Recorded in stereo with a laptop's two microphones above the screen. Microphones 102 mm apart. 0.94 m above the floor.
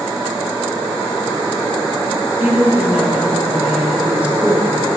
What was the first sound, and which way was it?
A woman speaking, 15° right (ahead or behind).